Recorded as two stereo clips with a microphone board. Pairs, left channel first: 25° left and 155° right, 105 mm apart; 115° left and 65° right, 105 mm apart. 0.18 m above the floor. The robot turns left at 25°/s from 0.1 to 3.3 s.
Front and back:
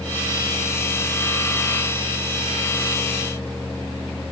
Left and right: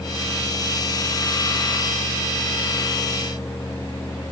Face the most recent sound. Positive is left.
No sound to turn to.